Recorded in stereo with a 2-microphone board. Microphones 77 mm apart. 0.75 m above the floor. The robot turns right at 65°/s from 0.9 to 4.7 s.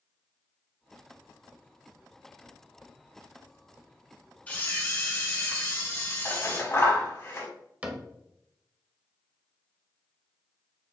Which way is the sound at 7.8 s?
20° right (ahead or behind).